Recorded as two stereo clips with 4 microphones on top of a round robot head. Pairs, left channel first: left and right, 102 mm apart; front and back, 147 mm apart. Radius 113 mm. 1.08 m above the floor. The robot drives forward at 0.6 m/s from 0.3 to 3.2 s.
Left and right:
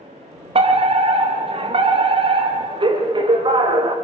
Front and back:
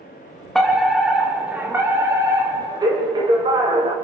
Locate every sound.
0.6 s a fire alarm: 90° right, 3 m; by 4.0 s 120° right, 3 m